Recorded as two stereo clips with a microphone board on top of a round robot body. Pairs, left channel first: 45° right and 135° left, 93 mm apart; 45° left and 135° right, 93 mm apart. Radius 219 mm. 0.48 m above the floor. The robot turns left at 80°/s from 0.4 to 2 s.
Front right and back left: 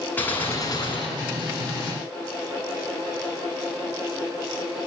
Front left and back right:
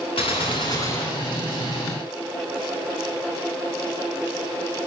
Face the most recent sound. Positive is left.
turn(degrees=-105)